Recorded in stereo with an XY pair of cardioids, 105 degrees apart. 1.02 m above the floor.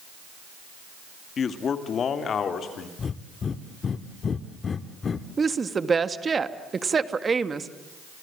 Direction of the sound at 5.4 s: 30° right.